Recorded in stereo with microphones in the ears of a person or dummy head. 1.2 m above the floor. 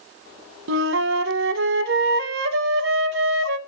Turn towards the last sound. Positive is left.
turn(degrees=-60)  # may be behind; listen again after turning